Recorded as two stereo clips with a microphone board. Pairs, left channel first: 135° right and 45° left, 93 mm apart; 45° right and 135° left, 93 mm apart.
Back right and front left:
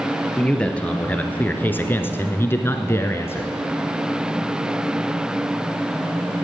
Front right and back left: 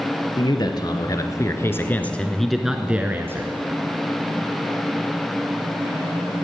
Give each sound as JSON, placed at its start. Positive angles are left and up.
{"t": 0.4, "sound": "a man speaking", "azimuth_deg": -60, "distance_m": 2.0}